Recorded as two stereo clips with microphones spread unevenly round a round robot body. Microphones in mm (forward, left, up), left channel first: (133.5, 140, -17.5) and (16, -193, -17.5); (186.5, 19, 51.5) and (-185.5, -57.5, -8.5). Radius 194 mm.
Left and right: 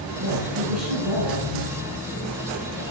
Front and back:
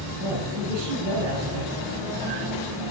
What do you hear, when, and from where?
0.2 s a woman speaking: 140° right, 9.5 m